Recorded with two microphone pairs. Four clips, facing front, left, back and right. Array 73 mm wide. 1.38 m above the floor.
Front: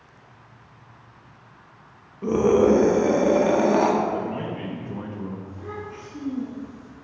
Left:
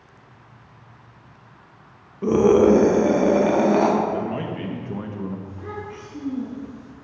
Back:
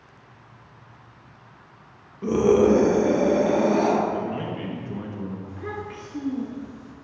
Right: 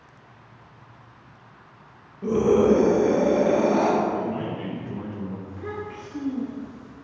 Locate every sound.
2.2 s a scream: 90° left, 0.9 m; by 3.9 s 40° left, 1.5 m
4.1 s a man speaking: 85° left, 1.0 m
5.5 s a child speaking: 160° right, 1.9 m